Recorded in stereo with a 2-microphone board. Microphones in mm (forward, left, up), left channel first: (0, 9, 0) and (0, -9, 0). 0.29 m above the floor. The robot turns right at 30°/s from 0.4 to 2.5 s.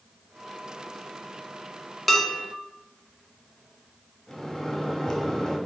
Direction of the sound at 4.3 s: 25° left (ahead or behind).